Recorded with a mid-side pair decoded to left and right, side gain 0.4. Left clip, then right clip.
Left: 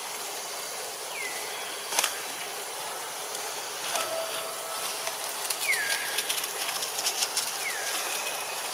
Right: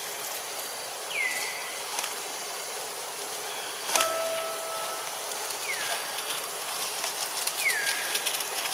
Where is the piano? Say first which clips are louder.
Right 6 dB; 45° right, 5 m.